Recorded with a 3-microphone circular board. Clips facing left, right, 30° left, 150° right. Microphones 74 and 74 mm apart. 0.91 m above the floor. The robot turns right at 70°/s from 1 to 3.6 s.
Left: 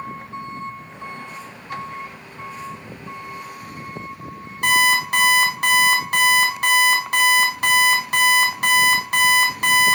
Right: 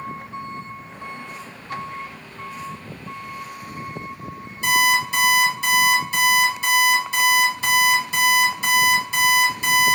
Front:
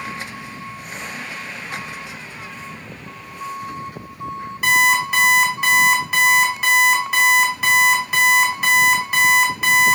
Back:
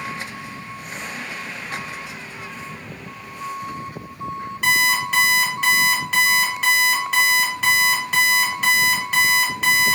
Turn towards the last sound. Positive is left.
turn(degrees=115)